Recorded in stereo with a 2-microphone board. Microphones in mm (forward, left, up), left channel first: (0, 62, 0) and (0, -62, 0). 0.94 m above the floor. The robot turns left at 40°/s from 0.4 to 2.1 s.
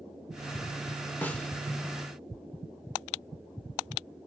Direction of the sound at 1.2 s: 15° left (ahead or behind).